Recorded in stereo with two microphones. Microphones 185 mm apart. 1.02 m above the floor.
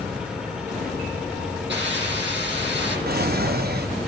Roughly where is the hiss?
Right.